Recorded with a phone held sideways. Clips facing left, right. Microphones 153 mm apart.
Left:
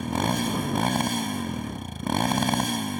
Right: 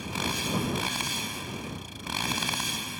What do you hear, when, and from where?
0.0 s a motorcycle: 55° left (ahead or behind)